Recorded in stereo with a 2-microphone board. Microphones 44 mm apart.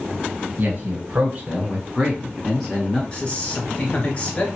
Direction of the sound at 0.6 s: 35° right (ahead or behind).